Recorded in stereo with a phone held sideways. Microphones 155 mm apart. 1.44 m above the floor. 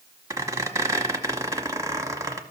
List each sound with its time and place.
0.3 s a squeak: 20° right (ahead or behind), 1.1 m